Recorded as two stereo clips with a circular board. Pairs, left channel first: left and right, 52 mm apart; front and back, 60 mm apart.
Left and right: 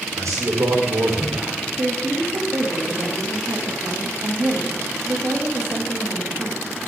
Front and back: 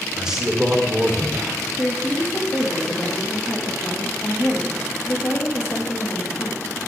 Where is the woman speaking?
50° right, 2.5 m.